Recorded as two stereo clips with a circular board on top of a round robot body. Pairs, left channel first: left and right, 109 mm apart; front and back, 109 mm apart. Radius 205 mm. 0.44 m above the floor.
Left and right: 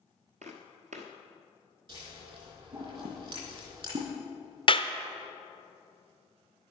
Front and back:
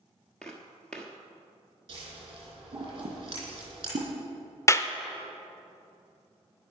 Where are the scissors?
130° right, 4 m.